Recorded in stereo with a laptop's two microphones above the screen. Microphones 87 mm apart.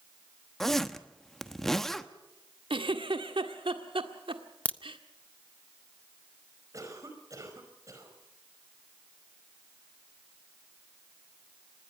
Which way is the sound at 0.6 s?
5° left (ahead or behind).